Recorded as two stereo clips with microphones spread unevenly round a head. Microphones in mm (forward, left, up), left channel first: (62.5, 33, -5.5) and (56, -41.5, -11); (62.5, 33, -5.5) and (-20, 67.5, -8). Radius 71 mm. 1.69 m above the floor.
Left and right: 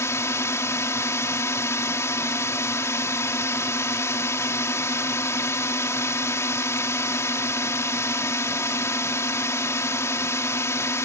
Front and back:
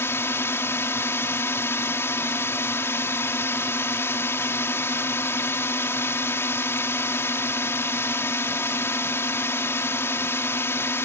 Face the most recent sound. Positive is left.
turn(degrees=35)